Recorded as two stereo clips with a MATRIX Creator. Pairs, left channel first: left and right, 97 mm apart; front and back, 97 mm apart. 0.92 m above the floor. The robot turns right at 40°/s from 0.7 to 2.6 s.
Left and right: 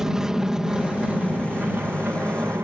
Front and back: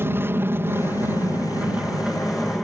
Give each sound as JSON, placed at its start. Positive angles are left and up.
{"t": 0.0, "sound": "an aircraft", "azimuth_deg": -165}